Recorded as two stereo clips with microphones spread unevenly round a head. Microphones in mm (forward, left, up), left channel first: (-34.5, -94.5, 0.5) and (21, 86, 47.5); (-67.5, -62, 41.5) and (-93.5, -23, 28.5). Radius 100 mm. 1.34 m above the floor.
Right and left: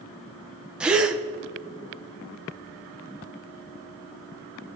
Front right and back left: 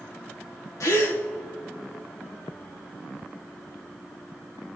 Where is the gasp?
15° right, 1.0 m.